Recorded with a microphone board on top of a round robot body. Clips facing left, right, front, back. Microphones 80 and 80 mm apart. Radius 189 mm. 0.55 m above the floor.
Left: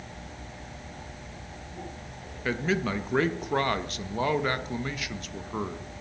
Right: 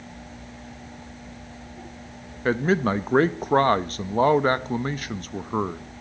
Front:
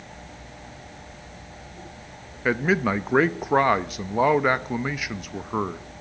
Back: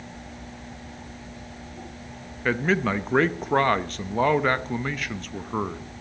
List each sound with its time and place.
2.5 s a man speaking: 75° right, 0.7 m